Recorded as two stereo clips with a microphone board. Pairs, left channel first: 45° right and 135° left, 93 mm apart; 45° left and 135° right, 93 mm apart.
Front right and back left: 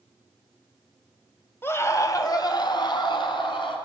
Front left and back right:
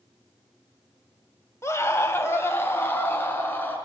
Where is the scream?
5° left, 1.8 m; by 3.8 s 25° right, 4 m.